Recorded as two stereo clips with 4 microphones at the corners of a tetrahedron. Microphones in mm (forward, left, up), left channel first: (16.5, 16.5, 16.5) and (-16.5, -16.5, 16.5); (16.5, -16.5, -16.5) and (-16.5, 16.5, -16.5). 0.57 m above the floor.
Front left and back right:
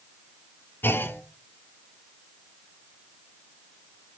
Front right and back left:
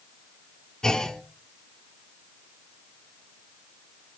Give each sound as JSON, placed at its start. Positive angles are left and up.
{"t": 0.8, "sound": "a clunk", "azimuth_deg": 30, "distance_m": 1.0}